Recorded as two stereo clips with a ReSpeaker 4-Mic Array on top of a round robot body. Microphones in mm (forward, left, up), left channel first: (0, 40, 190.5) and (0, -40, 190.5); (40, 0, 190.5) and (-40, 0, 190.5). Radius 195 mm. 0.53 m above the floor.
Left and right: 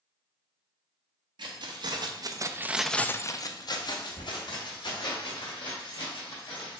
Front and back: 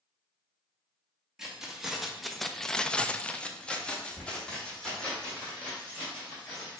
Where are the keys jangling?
95° right, 1.0 m; by 6.8 s 80° left, 2.5 m.